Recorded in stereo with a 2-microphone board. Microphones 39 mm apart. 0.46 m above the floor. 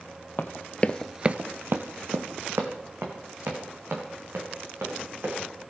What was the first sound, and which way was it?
Running footsteps, 55° left (ahead or behind).